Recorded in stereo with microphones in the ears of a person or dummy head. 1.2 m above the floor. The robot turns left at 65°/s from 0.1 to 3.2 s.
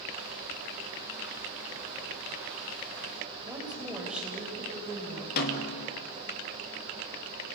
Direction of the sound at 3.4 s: 10° right (ahead or behind).